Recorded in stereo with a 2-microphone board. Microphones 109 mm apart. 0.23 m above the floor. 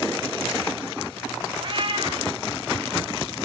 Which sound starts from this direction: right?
A cat meowing, at 1.6 s.